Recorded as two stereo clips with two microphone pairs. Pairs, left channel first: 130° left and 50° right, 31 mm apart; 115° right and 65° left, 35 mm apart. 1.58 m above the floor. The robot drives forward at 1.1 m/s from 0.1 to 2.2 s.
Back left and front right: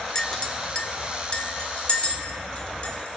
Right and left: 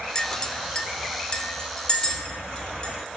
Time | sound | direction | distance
0.1 | a clink | 165° right | 0.5 m